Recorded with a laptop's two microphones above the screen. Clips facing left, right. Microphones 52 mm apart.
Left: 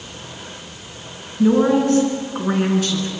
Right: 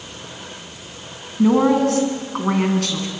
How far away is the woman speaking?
About 7 m.